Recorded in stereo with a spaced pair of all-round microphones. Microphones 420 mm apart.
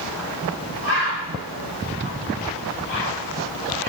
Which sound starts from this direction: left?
A bird, at 0.8 s.